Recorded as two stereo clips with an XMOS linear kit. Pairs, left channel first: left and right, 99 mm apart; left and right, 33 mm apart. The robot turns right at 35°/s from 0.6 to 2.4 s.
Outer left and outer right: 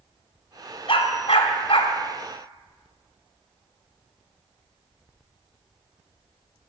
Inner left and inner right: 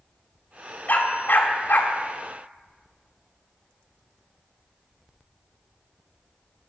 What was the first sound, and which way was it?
A dog barking, 65° left (ahead or behind).